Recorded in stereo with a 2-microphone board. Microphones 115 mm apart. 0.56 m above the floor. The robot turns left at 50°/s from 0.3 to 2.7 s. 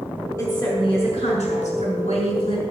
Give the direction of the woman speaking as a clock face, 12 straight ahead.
7 o'clock.